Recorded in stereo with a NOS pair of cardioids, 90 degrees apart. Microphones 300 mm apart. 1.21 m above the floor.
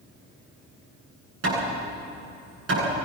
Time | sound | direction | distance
1.4 | hammering | 50° right | 9.5 m